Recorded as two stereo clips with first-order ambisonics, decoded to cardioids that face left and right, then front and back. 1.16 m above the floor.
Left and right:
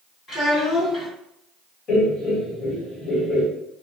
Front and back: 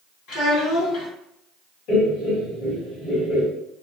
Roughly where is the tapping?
I don't hear tapping.